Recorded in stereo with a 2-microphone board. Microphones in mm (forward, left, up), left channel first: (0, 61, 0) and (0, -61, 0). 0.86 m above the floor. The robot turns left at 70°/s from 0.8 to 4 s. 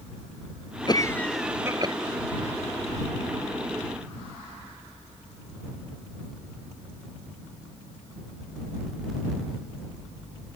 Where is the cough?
35° left; by 1.9 s 40° right.